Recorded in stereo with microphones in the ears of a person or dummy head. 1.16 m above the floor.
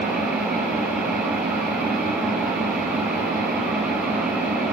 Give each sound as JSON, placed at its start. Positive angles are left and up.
{"t": 0.0, "sound": "an engine running", "side_deg": 0, "distance_m": 5.5}